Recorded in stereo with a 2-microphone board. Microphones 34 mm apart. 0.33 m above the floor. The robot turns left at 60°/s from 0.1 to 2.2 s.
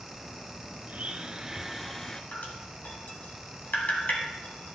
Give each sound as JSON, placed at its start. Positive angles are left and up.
{"t": 0.9, "sound": "a blender", "azimuth_deg": -125, "distance_m": 0.8}
{"t": 2.3, "sound": "dripping", "side_deg": 65, "distance_m": 1.8}